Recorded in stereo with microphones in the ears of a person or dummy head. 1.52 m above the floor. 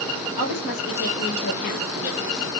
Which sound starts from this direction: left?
A woman speaking, at 0.4 s.